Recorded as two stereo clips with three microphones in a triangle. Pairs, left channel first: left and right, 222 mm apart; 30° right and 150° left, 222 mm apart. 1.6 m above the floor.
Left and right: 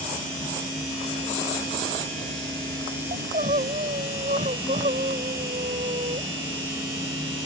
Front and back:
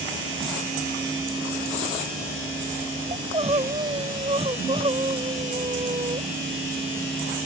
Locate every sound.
3.1 s crying: 145° right